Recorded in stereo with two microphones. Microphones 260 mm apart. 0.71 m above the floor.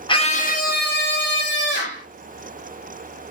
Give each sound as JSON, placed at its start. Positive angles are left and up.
{"t": 0.1, "sound": "a scream", "side_deg": 20, "distance_m": 1.1}